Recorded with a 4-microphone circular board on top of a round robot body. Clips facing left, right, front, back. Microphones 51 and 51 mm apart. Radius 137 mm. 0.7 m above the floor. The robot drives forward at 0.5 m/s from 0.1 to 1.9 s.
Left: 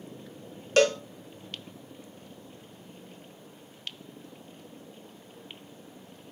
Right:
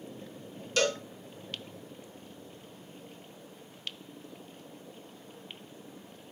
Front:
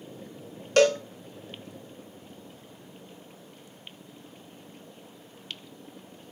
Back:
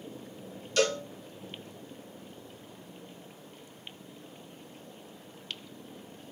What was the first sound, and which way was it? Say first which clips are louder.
A cowbell: left 7 dB, front 7 dB; 45° left.